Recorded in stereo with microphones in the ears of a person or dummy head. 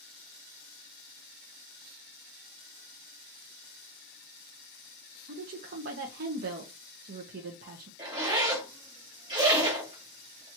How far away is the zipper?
About 1.5 m.